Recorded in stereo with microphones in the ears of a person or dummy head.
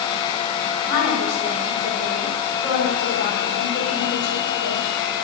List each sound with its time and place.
0.8 s a woman speaking: 65° left (ahead or behind), 5.5 m